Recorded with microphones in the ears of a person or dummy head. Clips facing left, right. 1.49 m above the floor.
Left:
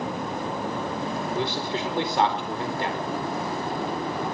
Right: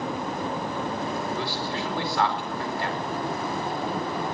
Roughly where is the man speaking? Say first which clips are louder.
Left 2 dB; left.